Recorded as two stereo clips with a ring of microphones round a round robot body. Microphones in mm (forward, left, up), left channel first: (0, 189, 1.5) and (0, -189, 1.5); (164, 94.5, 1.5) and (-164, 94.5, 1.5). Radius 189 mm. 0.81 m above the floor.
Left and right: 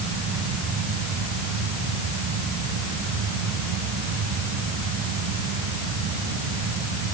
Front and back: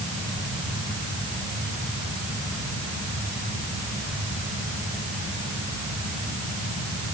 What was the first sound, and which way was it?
Only background noise.